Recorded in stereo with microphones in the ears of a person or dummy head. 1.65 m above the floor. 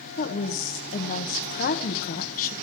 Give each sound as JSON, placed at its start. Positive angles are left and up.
{"t": 0.2, "sound": "a woman speaking", "side_deg": 40, "distance_m": 1.1}